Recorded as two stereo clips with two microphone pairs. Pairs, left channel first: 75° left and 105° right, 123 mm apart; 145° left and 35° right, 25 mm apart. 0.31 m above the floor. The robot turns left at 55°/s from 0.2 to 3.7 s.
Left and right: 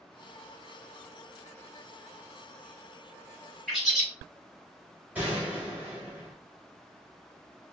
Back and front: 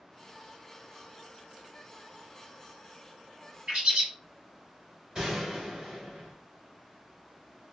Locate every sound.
3.7 s a bird: 15° right, 1.0 m
5.2 s a gunshot: 40° right, 1.4 m